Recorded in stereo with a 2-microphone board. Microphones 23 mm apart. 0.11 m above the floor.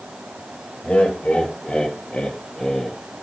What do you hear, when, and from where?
0.8 s laughter: 50° left (ahead or behind), 2.5 m; by 3.0 s 30° left (ahead or behind), 3 m